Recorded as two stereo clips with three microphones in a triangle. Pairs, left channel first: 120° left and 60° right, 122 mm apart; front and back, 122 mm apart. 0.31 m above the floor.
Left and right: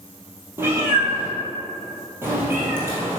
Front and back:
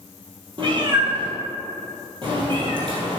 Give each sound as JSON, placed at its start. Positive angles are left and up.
{"t": 0.6, "sound": "a cat meowing", "azimuth_deg": -130, "distance_m": 1.9}